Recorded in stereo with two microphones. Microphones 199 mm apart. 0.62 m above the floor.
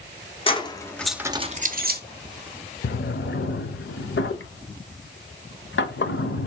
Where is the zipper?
I don't hear a zipper.